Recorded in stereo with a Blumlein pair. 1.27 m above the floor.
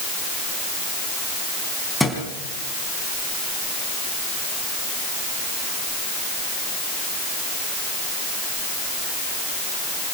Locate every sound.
2.0 s a thud: straight ahead, 4 m